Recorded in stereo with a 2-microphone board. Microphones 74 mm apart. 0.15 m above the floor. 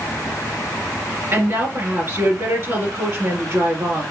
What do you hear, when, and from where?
1.3 s a woman speaking: 40° right (ahead or behind), 2.5 m